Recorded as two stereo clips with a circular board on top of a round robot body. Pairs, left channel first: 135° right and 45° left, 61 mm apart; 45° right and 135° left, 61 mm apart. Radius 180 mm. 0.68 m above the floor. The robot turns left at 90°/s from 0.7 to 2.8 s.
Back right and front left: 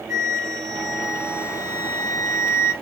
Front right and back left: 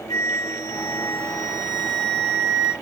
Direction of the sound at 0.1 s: 35° right.